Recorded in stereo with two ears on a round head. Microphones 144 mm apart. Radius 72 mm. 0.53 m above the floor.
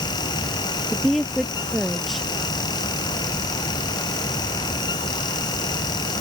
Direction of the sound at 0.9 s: Centre (ahead or behind).